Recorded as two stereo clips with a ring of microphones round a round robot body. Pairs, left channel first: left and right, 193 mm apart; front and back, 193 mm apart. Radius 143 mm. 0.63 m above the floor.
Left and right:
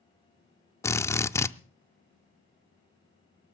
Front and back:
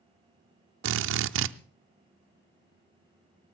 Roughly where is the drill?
Behind.